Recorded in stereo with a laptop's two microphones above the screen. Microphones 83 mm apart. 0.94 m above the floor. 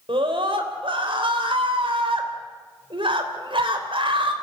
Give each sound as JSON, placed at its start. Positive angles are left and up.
{"t": 0.1, "sound": "a scream", "side_deg": -75, "distance_m": 3.5}